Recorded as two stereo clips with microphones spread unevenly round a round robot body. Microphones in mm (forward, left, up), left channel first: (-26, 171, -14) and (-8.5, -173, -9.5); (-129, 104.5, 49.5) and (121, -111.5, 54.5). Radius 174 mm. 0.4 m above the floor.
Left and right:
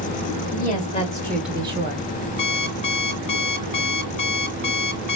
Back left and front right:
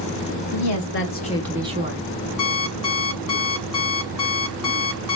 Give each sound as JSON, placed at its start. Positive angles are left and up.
{"t": 0.5, "sound": "a woman speaking", "azimuth_deg": 155, "distance_m": 1.9}
{"t": 2.4, "sound": "an alarm clock", "azimuth_deg": 165, "distance_m": 2.5}